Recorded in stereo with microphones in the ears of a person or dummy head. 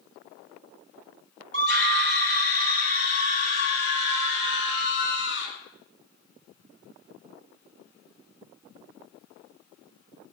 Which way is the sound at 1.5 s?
45° right (ahead or behind).